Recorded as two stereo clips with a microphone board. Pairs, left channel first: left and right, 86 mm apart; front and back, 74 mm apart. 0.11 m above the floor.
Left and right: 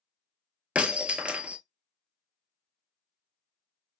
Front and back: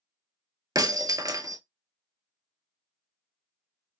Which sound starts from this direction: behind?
Breaking glass, at 0.8 s.